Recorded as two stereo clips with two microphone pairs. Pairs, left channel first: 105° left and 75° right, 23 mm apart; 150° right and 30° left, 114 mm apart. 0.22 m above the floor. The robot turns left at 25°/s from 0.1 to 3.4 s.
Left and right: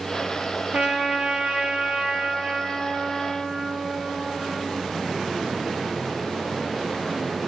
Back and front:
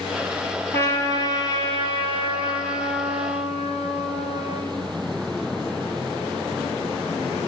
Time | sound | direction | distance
0.7 | a trumpet | 80° right | 2 m